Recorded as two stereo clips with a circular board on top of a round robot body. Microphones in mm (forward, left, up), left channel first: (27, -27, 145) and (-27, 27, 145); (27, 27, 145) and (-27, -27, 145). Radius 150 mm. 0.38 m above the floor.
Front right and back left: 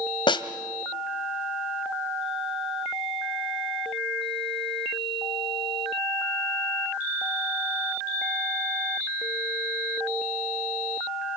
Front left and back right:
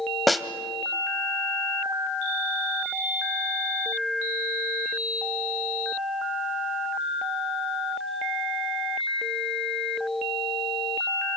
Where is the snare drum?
45° right, 1.7 m.